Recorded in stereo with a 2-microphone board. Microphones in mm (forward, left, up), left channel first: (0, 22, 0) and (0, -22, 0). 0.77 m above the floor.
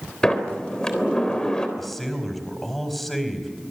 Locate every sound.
0.2 s a sliding door: 20° left (ahead or behind), 3.5 m
1.8 s a man speaking: centre (ahead or behind), 4.5 m